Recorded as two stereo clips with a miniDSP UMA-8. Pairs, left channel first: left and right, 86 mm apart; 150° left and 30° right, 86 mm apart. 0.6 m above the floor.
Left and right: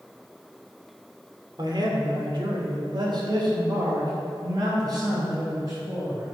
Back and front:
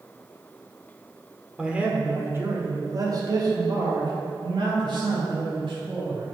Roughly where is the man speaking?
Right.